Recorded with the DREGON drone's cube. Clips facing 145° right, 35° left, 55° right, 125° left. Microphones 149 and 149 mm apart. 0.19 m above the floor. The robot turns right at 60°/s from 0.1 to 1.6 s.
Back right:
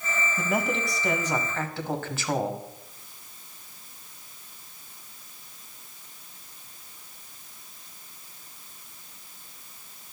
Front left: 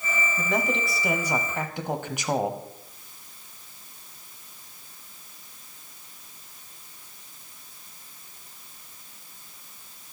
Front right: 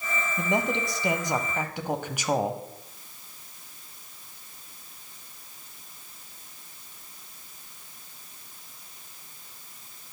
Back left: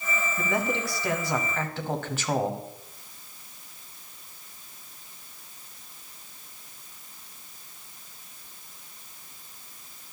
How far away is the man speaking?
About 1.0 m.